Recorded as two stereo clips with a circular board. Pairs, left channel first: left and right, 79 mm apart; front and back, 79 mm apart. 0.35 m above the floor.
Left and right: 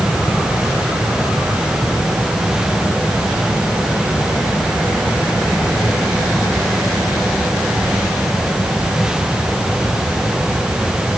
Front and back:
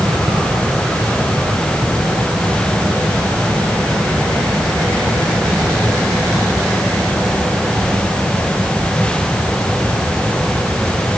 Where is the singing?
I don't hear singing.